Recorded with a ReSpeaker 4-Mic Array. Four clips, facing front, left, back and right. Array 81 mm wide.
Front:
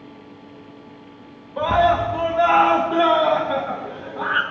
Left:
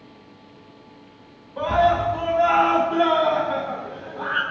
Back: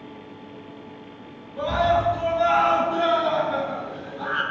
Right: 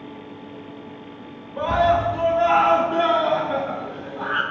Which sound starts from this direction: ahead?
A scream, at 1.6 s.